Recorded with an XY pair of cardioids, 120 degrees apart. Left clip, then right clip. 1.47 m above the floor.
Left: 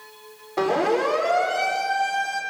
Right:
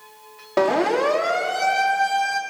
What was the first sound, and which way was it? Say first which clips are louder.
A siren: right 2 dB; 70° right.